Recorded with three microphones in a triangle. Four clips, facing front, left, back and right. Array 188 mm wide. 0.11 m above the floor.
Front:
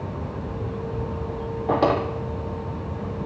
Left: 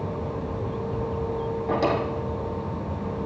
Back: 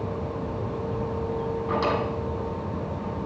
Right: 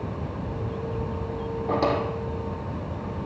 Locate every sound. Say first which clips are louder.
1.7 s a drawer: even, front 6 dB; 10° right, 2 m